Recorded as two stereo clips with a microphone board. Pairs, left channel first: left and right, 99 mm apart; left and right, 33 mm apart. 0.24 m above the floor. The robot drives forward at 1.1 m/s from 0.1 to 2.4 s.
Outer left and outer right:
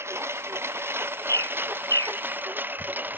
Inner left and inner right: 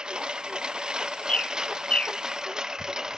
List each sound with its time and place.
0.0 s a lawn mower: 25° right (ahead or behind); by 3.2 s 20° right (ahead or behind)
1.3 s a bird: 30° left (ahead or behind); by 2.2 s 35° left (ahead or behind)